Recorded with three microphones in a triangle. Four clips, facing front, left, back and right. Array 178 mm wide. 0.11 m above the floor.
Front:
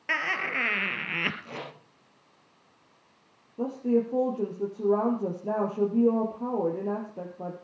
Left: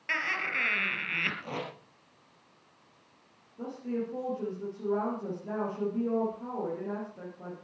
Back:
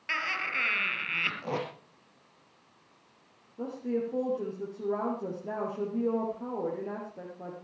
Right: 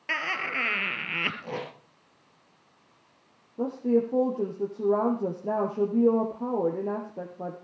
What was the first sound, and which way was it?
Laughter, 35° right.